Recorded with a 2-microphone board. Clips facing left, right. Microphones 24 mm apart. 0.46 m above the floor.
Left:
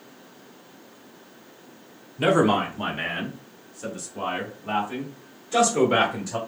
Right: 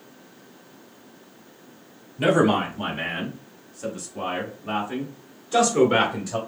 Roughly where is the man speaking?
Centre.